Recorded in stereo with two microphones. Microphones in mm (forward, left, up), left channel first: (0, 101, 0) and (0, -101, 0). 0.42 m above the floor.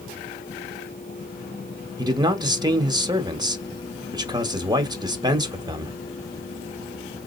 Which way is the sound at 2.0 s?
20° right (ahead or behind).